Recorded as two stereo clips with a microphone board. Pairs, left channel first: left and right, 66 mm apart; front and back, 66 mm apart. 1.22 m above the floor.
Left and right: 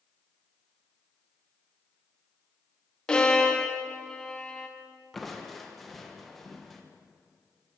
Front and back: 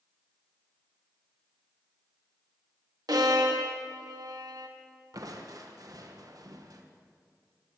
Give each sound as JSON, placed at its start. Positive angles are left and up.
{"t": 3.1, "sound": "a violin", "azimuth_deg": 165, "distance_m": 1.3}
{"t": 5.1, "sound": "crushing", "azimuth_deg": 175, "distance_m": 1.2}